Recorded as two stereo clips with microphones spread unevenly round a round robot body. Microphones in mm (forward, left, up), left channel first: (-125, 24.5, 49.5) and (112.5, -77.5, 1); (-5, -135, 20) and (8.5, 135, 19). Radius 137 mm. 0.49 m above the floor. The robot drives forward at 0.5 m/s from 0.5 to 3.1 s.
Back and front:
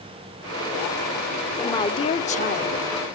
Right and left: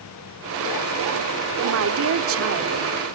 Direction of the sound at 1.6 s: 70° left.